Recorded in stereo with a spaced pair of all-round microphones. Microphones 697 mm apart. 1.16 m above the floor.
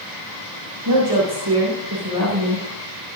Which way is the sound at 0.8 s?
35° right (ahead or behind).